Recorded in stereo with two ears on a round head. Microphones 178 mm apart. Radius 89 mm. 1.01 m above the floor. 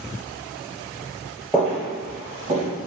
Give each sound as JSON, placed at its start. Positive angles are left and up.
{"t": 1.5, "sound": "footsteps", "side_deg": -5, "distance_m": 1.1}